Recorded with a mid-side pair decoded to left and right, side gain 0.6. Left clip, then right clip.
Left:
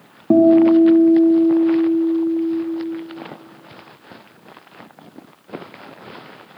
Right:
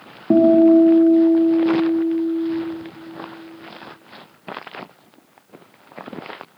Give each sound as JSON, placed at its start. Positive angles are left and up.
{"t": 0.3, "sound": "a guitar", "azimuth_deg": 5, "distance_m": 1.4}